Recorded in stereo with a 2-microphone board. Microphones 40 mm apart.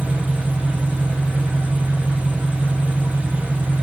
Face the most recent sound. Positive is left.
turn(degrees=-30)  # may be behind; listen again after turning